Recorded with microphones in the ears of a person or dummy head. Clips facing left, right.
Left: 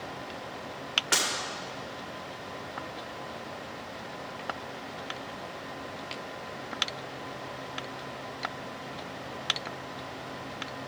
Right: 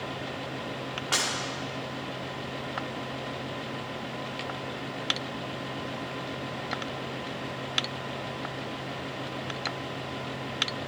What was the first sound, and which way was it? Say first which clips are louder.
Breaking glass: left 1 dB; 25° left (ahead or behind).